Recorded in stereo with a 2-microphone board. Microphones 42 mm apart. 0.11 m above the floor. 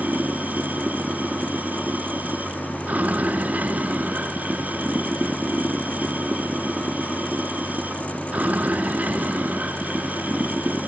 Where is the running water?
35° right (ahead or behind).